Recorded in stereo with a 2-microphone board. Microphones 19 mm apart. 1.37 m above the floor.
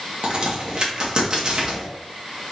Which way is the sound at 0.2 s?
35° right (ahead or behind).